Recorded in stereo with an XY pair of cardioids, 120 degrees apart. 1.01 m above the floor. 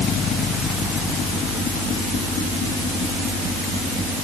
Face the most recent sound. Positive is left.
No sound to turn to.